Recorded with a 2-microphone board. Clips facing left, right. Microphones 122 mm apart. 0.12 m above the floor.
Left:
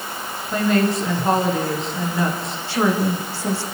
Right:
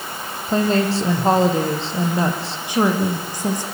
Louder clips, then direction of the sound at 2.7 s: Right 1 dB; 15° right (ahead or behind).